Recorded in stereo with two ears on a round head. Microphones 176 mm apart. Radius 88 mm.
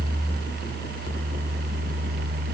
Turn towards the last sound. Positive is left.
No sound to turn to.